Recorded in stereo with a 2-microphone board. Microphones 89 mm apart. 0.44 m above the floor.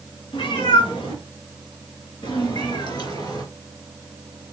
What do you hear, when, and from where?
0.3 s a cat meowing: 85° left, 2.5 m; by 3.4 s 50° left (ahead or behind), 3.5 m